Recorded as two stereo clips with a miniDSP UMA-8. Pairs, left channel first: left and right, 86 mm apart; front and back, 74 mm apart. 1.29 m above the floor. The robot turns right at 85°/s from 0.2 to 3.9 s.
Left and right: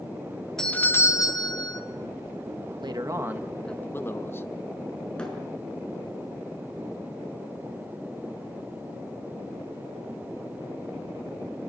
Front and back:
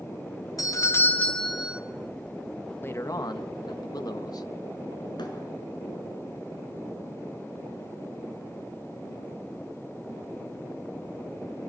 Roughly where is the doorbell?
Ahead.